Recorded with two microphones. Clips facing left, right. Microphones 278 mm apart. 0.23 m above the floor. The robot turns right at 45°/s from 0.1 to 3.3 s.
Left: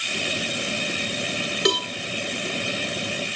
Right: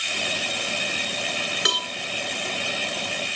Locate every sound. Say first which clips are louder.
1.6 s a cowbell: left 13 dB; 50° left (ahead or behind), 0.8 m; by 1.9 s 55° left (ahead or behind), 0.8 m